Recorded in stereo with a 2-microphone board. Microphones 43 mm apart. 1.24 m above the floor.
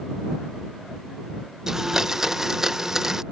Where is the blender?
10° right (ahead or behind).